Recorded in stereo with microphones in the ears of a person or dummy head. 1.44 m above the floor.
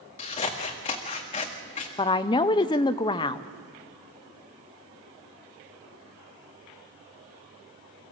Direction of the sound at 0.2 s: 25° left (ahead or behind).